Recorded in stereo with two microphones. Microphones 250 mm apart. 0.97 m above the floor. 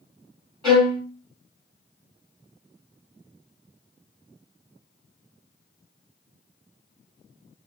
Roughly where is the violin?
Centre.